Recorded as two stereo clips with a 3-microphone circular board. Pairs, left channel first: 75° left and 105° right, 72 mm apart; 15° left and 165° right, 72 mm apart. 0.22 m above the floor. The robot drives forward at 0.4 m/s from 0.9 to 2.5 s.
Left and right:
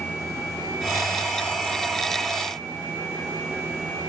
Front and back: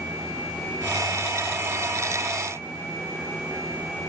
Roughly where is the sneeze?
No sneeze in this recording.